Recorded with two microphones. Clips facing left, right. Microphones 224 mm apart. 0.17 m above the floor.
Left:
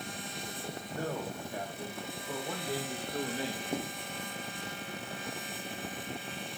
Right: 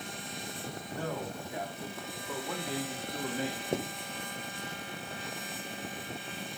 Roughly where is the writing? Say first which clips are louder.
Right 3 dB; right.